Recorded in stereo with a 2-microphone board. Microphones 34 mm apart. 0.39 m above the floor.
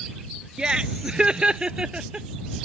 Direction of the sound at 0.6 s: 25° right (ahead or behind).